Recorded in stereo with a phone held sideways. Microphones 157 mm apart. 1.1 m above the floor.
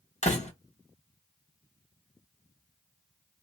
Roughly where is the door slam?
Left.